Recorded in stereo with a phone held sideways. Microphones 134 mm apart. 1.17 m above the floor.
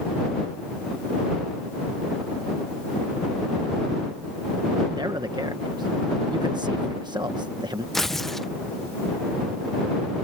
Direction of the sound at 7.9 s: Centre (ahead or behind).